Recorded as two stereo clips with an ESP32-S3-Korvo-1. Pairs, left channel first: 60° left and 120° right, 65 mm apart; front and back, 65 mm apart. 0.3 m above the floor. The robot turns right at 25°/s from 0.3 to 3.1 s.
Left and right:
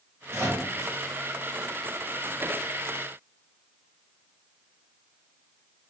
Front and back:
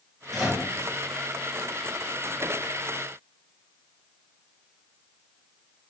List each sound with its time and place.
0.3 s a microwave: 85° right, 1.7 m; by 0.7 s 75° right, 1.7 m